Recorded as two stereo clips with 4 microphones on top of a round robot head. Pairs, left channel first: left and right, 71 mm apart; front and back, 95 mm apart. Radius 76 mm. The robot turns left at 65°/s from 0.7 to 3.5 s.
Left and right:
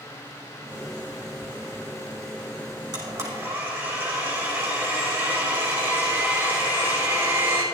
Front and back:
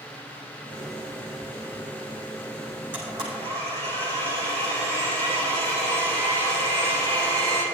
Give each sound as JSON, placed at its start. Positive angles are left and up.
{"t": 2.9, "sound": "a blender", "azimuth_deg": -110, "distance_m": 5.0}